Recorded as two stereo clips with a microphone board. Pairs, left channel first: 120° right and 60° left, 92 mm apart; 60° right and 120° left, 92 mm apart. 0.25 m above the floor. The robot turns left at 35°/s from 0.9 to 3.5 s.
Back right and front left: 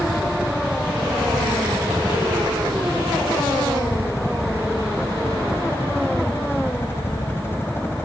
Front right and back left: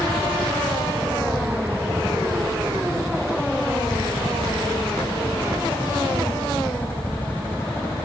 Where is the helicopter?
15° right; by 8.1 s 95° right.